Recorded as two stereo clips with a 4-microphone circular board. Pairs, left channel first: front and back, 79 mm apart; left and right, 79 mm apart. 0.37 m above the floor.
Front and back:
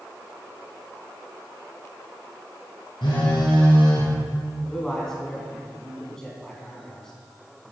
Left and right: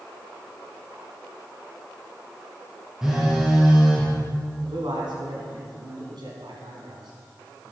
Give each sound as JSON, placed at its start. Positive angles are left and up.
{"t": 3.0, "sound": "a phone buzzing", "azimuth_deg": -5, "distance_m": 4.5}
{"t": 4.6, "sound": "a man speaking", "azimuth_deg": -80, "distance_m": 4.0}